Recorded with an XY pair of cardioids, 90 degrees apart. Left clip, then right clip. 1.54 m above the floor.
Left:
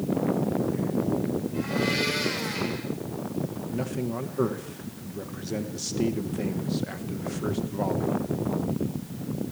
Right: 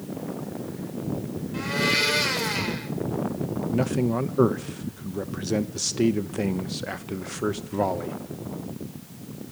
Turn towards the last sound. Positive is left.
turn(degrees=-55)